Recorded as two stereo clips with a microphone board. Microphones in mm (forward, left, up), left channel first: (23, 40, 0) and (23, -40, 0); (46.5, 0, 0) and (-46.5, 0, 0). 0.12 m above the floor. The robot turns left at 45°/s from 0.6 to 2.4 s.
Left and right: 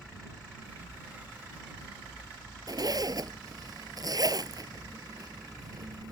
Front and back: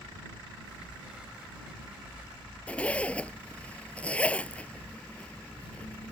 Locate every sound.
2.7 s a zipper: 75° right